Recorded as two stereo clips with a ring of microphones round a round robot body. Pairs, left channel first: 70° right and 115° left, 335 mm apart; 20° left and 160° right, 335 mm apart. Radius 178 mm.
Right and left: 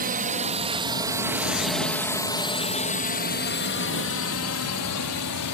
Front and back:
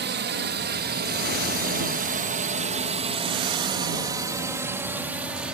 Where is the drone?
165° left; by 5.5 s 70° right.